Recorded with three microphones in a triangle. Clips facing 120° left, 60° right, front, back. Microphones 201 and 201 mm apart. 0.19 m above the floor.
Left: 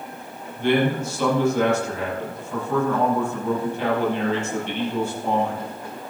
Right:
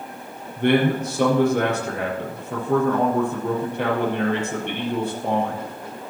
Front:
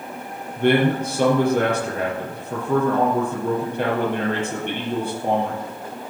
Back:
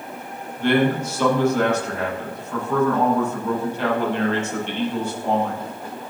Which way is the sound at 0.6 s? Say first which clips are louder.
Right 2 dB, front 1 dB; 30° right.